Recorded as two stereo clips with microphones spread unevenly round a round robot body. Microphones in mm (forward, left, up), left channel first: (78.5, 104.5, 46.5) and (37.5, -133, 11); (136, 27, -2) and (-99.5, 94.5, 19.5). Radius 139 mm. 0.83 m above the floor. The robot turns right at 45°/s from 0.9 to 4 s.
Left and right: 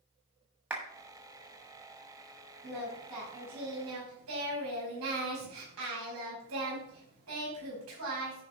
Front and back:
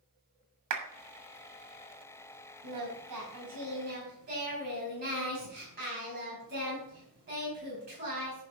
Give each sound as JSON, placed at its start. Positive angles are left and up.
{"t": 0.7, "sound": "a clap", "azimuth_deg": 180, "distance_m": 1.5}
{"t": 2.6, "sound": "singing", "azimuth_deg": 160, "distance_m": 4.5}